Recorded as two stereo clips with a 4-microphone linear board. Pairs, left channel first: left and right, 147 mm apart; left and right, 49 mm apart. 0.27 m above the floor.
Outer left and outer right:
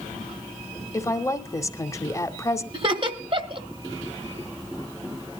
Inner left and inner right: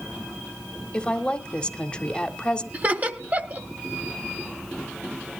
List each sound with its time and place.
0.9 s a woman speaking: 20° left (ahead or behind), 0.9 m
2.7 s laughter: 35° right (ahead or behind), 1.3 m